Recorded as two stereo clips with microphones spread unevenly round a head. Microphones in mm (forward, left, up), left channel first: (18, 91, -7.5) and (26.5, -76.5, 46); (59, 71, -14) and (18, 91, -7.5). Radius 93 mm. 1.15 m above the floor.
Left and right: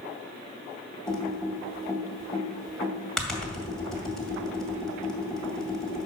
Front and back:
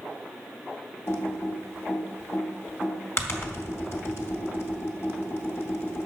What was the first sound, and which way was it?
Typing on a keyboard, straight ahead.